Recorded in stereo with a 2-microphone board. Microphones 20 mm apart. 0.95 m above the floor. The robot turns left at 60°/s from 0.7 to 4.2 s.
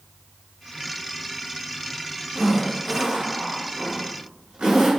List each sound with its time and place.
2.4 s a zipper: 5° left (ahead or behind), 4.5 m; by 4.9 s 70° right (ahead or behind), 4.5 m